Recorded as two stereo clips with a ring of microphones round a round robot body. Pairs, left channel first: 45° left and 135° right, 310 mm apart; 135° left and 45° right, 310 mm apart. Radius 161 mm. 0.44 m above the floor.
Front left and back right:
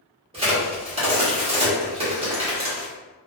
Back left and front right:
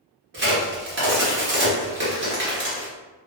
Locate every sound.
0.3 s a crack: 75° right, 1.1 m